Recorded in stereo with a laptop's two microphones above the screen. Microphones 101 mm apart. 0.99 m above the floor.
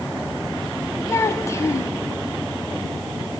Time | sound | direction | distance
1.1 | a child speaking | 30° left (ahead or behind) | 1.3 m